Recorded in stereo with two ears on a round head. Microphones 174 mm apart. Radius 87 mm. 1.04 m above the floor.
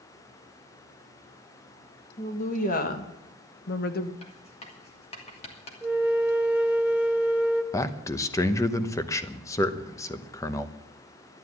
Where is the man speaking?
15° left (ahead or behind), 0.9 m.